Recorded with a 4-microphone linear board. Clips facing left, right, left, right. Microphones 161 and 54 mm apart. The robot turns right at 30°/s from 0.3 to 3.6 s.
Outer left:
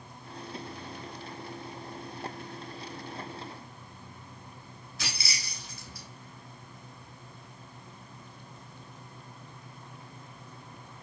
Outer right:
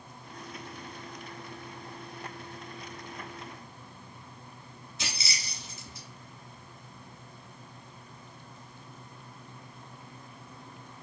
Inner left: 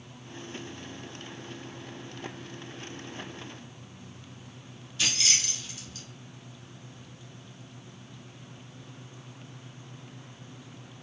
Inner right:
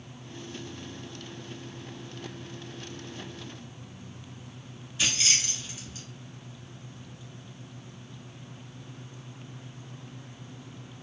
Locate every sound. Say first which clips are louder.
5.0 s keys jangling: even, inner right 1 dB; 20° right (ahead or behind), 1.1 m